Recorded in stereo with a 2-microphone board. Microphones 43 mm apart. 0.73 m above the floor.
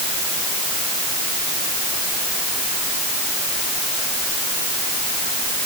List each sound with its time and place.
Only background noise.